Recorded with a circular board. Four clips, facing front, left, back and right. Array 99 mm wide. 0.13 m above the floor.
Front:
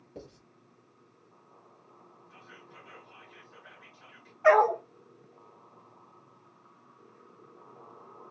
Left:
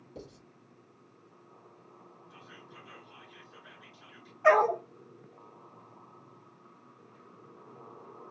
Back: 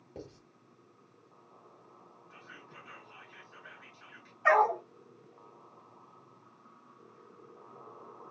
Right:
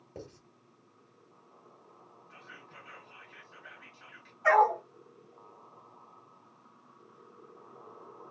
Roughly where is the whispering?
Right.